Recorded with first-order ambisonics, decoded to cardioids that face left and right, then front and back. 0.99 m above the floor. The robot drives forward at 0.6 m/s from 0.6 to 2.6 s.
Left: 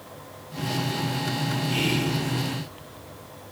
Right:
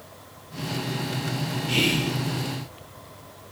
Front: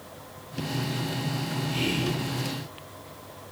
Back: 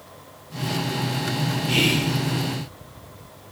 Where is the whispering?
155° right, 1.4 m; by 2.1 s 160° right, 1.6 m.